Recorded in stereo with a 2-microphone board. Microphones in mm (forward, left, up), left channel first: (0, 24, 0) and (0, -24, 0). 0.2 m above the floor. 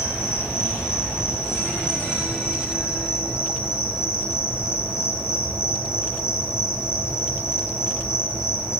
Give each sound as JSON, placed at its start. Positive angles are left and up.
{"t": 0.0, "sound": "an insect", "side_deg": 65, "distance_m": 2.5}